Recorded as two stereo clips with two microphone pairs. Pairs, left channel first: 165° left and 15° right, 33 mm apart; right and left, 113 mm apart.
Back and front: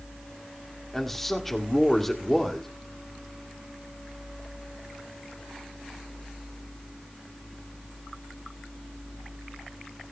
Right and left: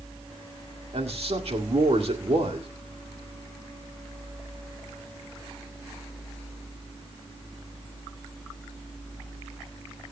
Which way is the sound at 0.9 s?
80° left.